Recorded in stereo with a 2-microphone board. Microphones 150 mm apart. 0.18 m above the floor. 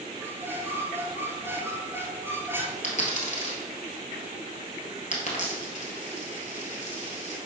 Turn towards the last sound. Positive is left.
turn(degrees=55)  # may be behind; listen again after turning